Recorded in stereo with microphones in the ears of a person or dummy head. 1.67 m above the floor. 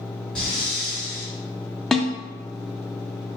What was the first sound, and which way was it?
Breathing, 5° left (ahead or behind).